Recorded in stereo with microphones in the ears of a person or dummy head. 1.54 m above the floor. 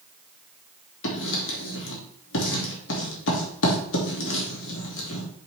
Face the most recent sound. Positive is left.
turn(degrees=75)  # may be behind; listen again after turning